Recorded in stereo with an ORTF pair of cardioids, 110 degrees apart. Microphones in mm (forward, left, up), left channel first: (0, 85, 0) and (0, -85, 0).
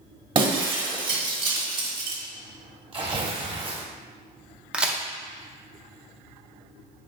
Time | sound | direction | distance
0.3 | breaking glass | 30° right | 1.3 m
2.9 | tearing paper | 30° right | 1.3 m
4.7 | a crack | 5° right | 0.6 m